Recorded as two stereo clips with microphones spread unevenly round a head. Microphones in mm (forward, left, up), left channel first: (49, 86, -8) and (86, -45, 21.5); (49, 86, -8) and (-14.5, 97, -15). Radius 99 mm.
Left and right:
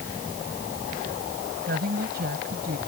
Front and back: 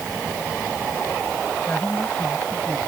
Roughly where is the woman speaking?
Right.